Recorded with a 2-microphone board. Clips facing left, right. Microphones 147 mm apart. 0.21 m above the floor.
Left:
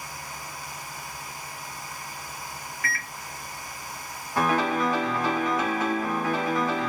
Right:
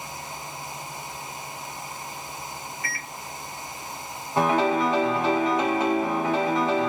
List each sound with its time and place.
2.8 s a microwave: 25° right (ahead or behind), 1.1 m
4.4 s a piano: 25° right (ahead or behind), 1.0 m